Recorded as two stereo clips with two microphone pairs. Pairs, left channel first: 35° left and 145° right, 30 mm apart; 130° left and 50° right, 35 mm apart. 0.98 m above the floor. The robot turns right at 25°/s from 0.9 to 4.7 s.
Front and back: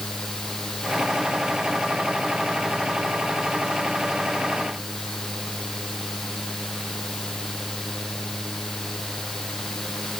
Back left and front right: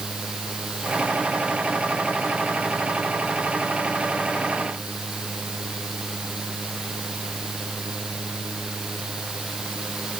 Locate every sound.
Only background noise.